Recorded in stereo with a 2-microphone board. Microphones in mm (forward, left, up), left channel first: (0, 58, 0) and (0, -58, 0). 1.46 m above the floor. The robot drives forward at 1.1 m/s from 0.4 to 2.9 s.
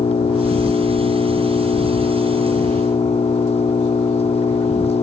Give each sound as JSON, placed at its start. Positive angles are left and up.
{"t": 0.0, "sound": "an engine running", "side_deg": 55}